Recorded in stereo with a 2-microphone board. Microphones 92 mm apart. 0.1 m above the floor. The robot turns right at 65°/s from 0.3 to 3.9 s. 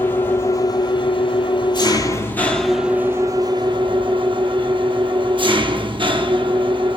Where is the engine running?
25° left, 0.8 m; by 7.0 s 100° right, 0.8 m.